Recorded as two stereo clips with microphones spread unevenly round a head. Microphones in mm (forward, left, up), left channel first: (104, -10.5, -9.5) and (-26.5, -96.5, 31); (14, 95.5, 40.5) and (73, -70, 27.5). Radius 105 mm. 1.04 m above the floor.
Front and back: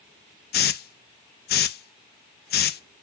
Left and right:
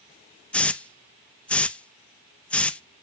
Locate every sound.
0.5 s a hiss: 25° left, 0.7 m